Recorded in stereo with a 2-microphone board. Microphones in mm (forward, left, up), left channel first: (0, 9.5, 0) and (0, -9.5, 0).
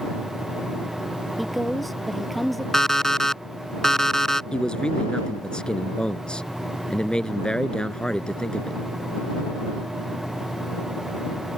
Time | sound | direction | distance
1.4 | a woman speaking | centre (ahead or behind) | ?
2.7 | an alarm clock | 20° left (ahead or behind) | ?
4.5 | a man speaking | 50° left (ahead or behind) | ?